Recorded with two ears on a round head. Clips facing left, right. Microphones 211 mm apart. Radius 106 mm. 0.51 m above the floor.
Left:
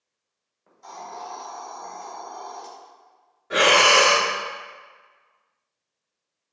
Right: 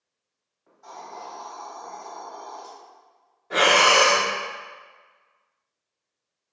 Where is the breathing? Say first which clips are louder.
Left 1 dB; 15° left (ahead or behind), 0.7 m.